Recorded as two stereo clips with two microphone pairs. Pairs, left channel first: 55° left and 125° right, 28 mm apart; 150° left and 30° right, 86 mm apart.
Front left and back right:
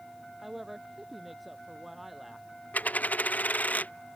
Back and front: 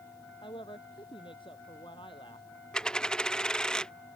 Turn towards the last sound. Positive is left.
turn(degrees=70)